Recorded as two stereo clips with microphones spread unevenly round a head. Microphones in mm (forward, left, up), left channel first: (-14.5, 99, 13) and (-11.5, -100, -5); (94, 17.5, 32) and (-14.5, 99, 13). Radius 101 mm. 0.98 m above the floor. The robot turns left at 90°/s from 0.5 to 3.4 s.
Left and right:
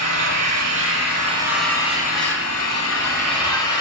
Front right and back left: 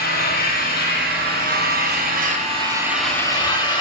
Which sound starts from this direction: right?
An engine running, at 0.0 s.